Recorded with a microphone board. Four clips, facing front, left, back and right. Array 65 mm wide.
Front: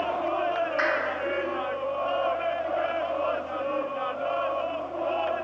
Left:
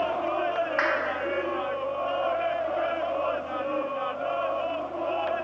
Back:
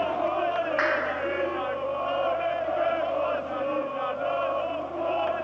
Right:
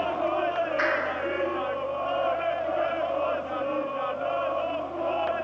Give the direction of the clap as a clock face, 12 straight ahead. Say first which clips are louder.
Left 1 dB, back 1 dB; 8 o'clock.